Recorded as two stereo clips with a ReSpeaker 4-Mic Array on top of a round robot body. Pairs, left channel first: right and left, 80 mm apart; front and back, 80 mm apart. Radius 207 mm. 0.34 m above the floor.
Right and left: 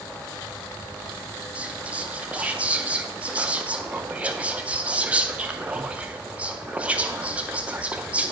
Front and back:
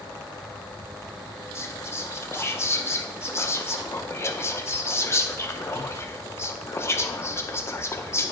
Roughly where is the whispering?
Ahead left.